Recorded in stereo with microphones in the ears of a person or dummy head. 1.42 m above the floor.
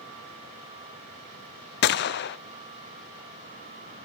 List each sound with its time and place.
1.8 s a gunshot: 45° left (ahead or behind), 0.6 m